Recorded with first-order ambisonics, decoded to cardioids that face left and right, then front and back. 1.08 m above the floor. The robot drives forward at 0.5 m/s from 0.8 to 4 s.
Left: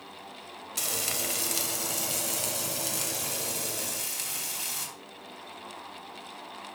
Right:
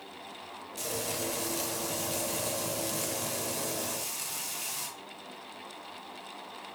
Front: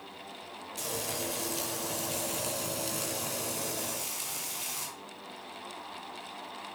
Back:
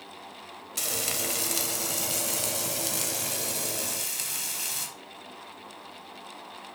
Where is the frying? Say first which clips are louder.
Left 3 dB, back 5 dB; 135° left, 2 m; by 4.9 s 155° left, 3.5 m.